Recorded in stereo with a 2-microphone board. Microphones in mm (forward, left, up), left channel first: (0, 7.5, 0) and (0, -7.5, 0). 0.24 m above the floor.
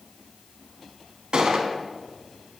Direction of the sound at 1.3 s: 60° right (ahead or behind).